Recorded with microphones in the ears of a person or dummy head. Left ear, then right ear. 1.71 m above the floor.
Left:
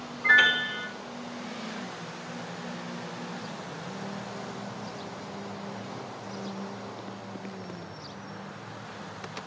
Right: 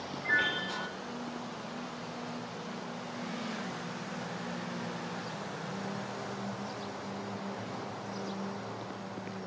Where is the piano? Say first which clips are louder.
Left 9 dB; 60° left (ahead or behind), 2.5 m.